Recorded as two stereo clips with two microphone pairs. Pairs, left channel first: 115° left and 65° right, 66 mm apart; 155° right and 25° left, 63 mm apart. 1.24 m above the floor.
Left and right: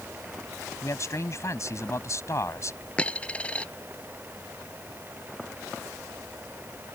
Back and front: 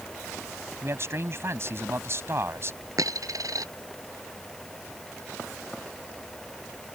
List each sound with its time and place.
0.8 s a man speaking: 70° left
3.0 s a dropped coin: 45° left